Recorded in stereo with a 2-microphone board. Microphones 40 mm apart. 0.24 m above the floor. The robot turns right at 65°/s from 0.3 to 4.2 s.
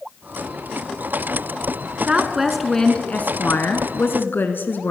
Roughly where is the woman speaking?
Ahead right.